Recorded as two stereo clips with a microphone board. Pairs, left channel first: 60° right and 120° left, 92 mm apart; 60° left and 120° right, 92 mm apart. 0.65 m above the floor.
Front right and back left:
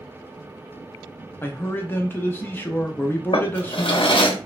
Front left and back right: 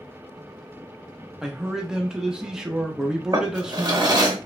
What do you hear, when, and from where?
1.4 s a man speaking: 45° right, 0.5 m
3.3 s a drawer: 75° right, 0.7 m